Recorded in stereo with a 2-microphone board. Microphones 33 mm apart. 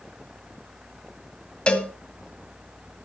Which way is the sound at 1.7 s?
30° left (ahead or behind).